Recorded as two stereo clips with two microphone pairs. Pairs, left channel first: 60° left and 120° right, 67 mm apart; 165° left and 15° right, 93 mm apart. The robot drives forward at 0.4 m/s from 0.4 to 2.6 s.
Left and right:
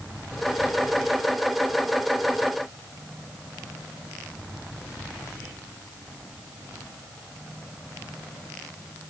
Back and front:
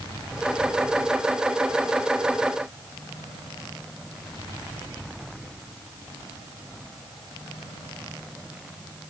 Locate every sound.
Only background noise.